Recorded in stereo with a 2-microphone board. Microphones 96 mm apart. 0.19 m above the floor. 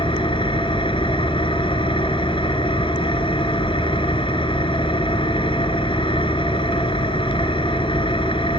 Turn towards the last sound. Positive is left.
turn(degrees=65)  # may be behind; listen again after turning